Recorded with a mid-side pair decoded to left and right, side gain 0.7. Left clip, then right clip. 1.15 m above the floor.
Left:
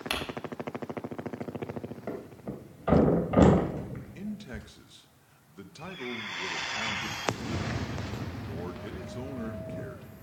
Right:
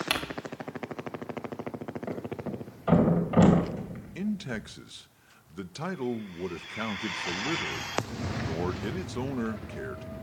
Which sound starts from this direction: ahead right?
A man speaking, at 4.2 s.